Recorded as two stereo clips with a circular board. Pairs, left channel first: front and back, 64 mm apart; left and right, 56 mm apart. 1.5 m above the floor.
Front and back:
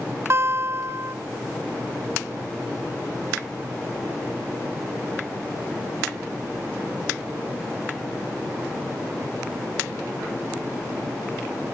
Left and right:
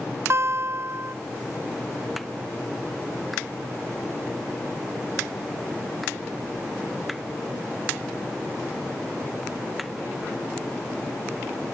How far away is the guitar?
About 0.6 m.